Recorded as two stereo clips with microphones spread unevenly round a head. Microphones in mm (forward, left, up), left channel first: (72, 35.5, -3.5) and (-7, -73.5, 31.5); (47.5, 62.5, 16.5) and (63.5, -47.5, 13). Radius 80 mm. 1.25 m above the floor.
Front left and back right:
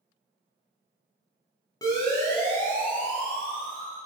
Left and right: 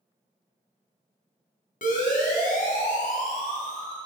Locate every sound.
1.8 s a siren: 125° left, 9 m; by 4.0 s 145° left, 9.5 m